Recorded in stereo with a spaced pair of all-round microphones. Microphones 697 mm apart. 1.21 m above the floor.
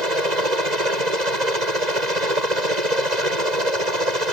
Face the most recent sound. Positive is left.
turn(degrees=-75)  # may be behind; listen again after turning